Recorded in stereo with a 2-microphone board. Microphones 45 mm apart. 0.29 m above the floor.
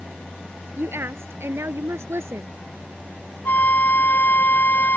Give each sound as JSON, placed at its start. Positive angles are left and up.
{"t": 0.8, "sound": "a woman speaking", "side_deg": -65}
{"t": 3.5, "sound": "a flute", "side_deg": 45}